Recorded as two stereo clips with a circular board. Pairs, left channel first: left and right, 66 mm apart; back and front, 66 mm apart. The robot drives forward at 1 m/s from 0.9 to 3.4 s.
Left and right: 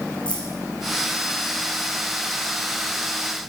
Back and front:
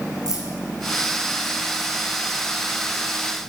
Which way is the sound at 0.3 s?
15° left.